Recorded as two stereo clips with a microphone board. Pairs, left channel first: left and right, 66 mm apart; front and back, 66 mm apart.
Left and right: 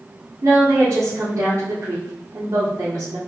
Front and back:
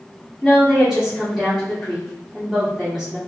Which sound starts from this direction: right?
A woman speaking, at 0.4 s.